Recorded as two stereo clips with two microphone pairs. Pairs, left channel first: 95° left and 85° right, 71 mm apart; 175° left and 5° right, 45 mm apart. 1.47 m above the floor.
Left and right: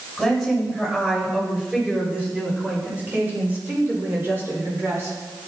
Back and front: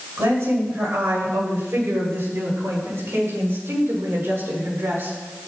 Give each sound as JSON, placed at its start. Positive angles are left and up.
{"t": 0.2, "sound": "a woman speaking", "azimuth_deg": 0, "distance_m": 7.5}